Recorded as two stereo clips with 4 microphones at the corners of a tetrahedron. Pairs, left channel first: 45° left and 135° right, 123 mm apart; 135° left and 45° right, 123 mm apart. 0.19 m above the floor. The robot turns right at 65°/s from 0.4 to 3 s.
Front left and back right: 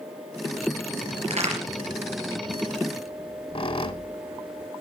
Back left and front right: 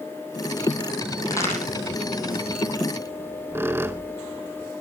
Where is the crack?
170° right, 4 m; by 1.6 s 145° right, 4 m.